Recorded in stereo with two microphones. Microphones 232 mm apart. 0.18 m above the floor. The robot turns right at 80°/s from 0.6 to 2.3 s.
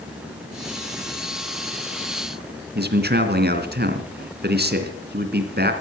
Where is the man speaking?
45° right (ahead or behind), 2.5 m.